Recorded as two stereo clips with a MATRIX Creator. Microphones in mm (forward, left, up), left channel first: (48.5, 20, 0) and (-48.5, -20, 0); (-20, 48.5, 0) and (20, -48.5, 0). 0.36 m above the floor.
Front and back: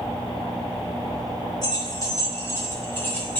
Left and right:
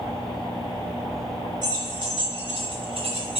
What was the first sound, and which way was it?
Keys jangling, 25° right.